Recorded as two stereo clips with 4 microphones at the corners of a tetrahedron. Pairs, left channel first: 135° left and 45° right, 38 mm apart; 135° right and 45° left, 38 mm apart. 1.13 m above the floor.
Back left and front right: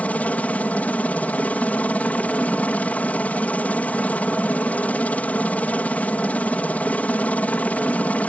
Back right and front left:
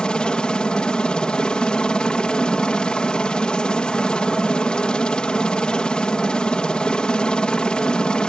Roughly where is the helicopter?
Behind.